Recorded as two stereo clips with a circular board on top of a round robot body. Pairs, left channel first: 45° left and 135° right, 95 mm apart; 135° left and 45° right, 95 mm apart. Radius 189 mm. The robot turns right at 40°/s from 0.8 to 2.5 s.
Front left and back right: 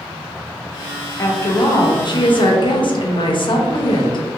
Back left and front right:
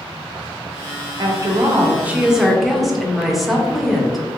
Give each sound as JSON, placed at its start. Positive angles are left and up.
{"t": 1.2, "sound": "a woman speaking", "azimuth_deg": -10, "distance_m": 0.7}